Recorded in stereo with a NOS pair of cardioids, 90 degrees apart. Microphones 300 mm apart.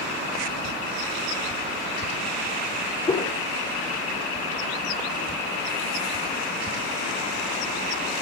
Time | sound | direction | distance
3.1 | a whoosh | 20° left | 3 m